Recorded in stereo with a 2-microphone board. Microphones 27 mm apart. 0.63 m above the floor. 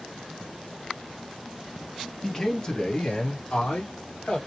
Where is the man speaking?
15° left (ahead or behind), 0.9 m; by 4.4 s 55° left (ahead or behind), 1.9 m.